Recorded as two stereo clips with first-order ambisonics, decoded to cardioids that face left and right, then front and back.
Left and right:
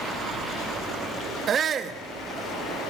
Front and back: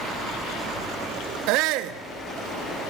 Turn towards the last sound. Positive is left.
turn(degrees=-150)